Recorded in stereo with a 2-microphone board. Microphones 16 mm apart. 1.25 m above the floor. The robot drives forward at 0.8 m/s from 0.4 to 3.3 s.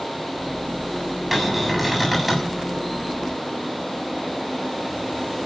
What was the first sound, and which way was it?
A cupboard door, 10° right (ahead or behind).